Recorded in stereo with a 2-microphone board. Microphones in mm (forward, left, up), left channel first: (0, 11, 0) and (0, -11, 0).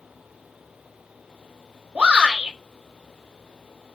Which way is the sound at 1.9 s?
65° right (ahead or behind).